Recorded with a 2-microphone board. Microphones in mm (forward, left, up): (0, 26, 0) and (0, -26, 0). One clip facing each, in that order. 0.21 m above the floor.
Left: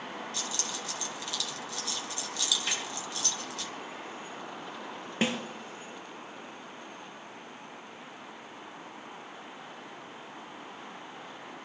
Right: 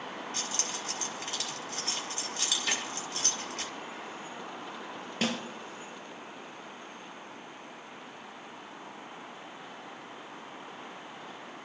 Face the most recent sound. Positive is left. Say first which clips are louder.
# left 2 dB
turn(degrees=25)  # may be behind; listen again after turning